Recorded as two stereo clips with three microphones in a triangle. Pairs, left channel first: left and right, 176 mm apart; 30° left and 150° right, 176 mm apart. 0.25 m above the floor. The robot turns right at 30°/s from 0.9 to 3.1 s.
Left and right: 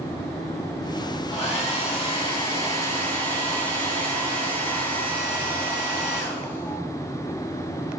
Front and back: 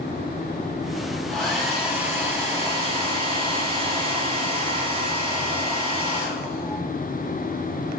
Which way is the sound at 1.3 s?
110° left.